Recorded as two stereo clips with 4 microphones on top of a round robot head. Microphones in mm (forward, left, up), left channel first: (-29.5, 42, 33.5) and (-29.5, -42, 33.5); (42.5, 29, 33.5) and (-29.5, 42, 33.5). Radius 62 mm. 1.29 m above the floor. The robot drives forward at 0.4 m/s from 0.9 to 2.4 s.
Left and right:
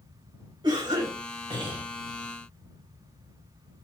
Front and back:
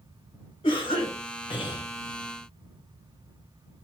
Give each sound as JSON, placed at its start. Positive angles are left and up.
{"t": 0.6, "sound": "a cough", "azimuth_deg": -35, "distance_m": 1.5}